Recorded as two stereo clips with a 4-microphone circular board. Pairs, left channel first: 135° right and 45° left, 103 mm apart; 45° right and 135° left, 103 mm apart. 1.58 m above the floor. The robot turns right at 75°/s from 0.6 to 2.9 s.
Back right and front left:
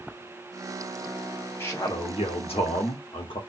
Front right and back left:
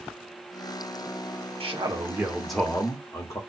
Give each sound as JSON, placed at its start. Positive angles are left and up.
{"t": 1.6, "sound": "a man speaking", "azimuth_deg": 160, "distance_m": 1.3}